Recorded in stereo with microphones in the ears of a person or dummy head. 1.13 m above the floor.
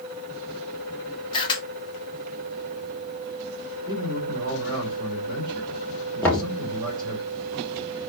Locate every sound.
1.3 s a camera shutter: 25° left (ahead or behind), 1.2 m
3.9 s a man speaking: 15° right (ahead or behind), 2.5 m
6.2 s knocking: 10° left (ahead or behind), 1.4 m